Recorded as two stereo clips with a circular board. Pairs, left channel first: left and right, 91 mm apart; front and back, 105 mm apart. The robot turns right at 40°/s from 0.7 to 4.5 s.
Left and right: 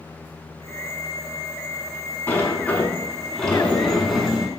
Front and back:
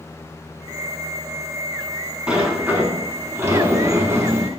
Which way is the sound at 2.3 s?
115° left.